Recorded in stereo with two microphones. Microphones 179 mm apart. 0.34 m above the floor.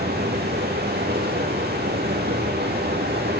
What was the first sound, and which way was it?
Running water, 70° right (ahead or behind).